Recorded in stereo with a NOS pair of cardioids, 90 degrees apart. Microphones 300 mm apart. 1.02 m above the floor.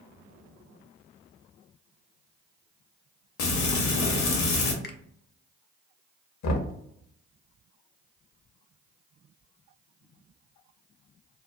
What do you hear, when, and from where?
3.4 s frying: 70° left, 0.9 m
4.8 s a finger snap: 35° left, 0.6 m
6.4 s knocking: 65° left, 0.8 m